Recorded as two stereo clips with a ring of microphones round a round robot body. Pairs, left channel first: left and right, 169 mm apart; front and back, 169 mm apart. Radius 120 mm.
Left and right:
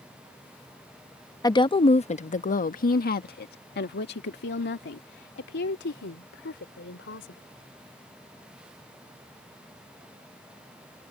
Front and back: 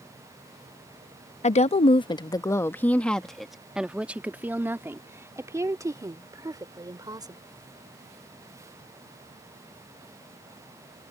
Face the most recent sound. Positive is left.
turn(degrees=115)